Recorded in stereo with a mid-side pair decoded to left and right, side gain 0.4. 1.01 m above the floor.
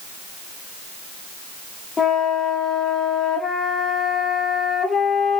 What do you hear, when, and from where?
2.0 s a flute: 40° left, 1.6 m